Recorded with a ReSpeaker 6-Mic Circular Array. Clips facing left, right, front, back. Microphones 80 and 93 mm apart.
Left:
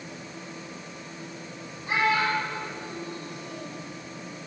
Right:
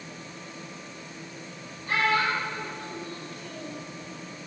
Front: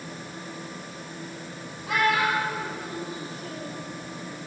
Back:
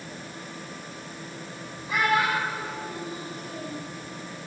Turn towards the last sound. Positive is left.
turn(degrees=20)